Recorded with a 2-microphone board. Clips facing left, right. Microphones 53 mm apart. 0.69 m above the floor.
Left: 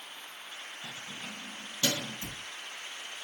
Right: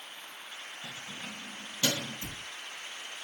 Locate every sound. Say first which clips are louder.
0.8 s keys jangling: even; 20° right (ahead or behind), 4 m; by 2.2 s 10° right (ahead or behind), 3.5 m
2.2 s a cupboard door: even; 15° left (ahead or behind), 5 m